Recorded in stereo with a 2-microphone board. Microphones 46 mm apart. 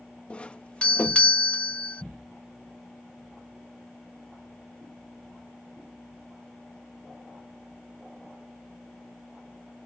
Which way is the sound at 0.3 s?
25° left (ahead or behind).